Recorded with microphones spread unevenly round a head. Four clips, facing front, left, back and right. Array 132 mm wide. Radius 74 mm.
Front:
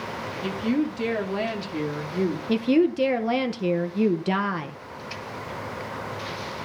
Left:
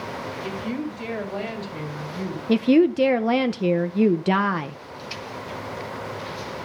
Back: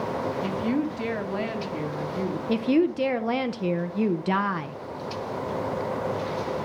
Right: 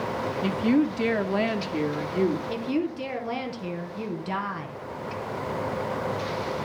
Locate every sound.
0.4 s a woman speaking: 80° right, 2.5 m; by 2.4 s 40° right, 2.5 m
2.5 s a woman speaking: 80° left, 0.8 m